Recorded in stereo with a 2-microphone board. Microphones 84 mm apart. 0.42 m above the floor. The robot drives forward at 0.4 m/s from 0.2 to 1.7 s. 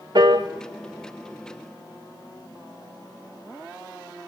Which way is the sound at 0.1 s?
60° right (ahead or behind).